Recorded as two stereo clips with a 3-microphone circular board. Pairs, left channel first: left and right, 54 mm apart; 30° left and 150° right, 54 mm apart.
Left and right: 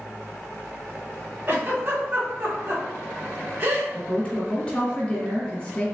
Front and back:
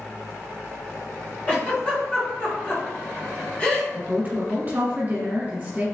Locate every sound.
1.5 s a giggle: 40° right, 1.2 m
3.9 s a woman speaking: 155° left, 1.3 m